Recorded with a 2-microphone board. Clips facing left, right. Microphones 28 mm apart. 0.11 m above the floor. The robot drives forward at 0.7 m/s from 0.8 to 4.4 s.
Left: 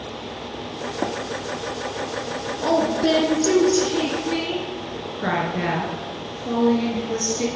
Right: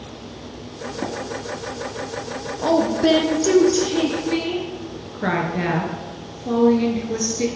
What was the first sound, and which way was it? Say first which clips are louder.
Tapping: left 2 dB; 50° left (ahead or behind).